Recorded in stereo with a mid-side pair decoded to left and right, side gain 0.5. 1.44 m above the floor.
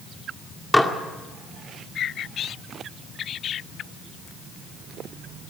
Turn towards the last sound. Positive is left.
turn(degrees=10)